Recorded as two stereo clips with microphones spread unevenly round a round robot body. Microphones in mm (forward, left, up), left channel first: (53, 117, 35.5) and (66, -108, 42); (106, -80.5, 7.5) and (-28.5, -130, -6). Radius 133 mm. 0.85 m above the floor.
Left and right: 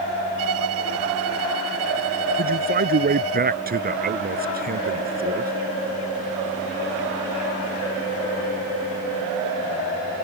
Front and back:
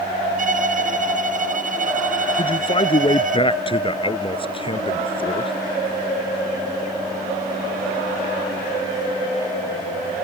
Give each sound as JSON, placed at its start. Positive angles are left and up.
{"t": 0.4, "sound": "a violin", "azimuth_deg": -130}
{"t": 2.4, "sound": "a man speaking", "azimuth_deg": -35}